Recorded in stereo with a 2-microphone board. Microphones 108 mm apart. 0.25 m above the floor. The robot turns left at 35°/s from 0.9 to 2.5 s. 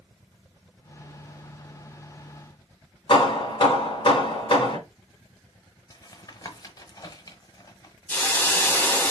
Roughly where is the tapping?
Left.